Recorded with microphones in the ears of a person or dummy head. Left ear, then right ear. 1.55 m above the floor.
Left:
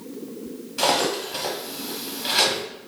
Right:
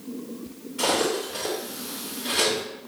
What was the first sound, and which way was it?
Cutlery clinking, 55° left (ahead or behind).